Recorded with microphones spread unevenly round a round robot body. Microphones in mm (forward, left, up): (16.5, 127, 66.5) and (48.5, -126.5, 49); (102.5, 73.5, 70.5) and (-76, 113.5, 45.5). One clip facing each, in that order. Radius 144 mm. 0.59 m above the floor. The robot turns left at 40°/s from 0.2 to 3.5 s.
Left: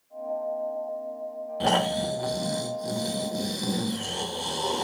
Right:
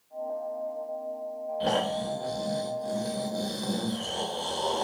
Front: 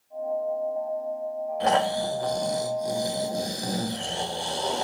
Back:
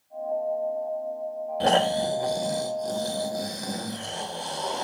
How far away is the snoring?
About 2.5 m.